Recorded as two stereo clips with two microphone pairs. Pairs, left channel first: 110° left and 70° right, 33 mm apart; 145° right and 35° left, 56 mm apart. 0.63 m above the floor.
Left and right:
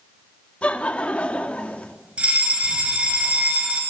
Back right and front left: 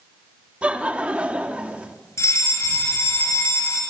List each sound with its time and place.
0.6 s laughter: 90° left, 1.5 m
2.2 s a fire alarm: 120° right, 6 m